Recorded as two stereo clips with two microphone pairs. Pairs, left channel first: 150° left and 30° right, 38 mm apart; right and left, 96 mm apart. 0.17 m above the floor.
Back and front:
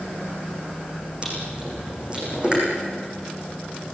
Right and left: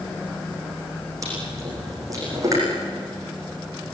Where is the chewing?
35° left, 9 m.